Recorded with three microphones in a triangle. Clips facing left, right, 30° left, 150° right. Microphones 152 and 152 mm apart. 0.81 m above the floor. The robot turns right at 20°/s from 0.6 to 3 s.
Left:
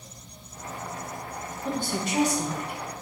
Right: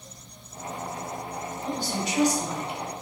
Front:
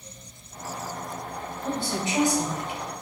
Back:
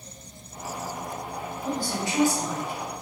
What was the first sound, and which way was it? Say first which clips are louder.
A woman speaking: left 2 dB, front 1 dB; 85° left.